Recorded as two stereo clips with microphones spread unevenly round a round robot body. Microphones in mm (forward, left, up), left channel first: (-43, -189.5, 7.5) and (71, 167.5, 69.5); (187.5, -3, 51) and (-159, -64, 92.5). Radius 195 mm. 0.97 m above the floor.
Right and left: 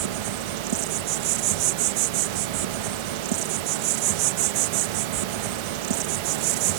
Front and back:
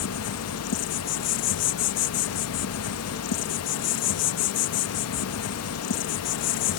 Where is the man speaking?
I don't hear a man speaking.